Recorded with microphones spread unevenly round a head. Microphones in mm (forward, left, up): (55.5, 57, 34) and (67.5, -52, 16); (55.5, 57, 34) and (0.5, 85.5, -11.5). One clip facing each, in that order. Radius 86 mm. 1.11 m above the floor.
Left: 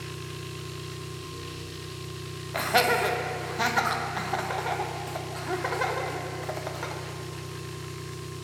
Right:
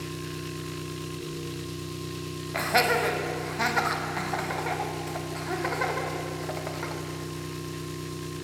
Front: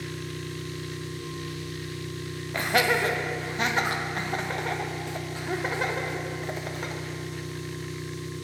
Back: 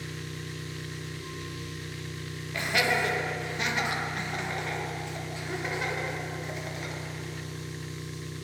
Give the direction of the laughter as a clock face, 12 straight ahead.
12 o'clock.